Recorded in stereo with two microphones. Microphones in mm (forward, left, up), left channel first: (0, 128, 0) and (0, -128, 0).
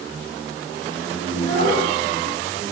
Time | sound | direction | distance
1.3 | a child speaking | 30° left (ahead or behind) | 10 m